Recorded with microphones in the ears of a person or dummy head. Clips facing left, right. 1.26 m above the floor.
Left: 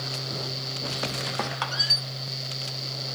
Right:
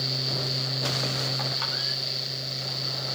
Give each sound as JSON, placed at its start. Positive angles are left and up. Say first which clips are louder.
{"t": 1.4, "sound": "a squeak", "louder": "left 3 dB", "side_deg": 65, "distance_m": 1.4}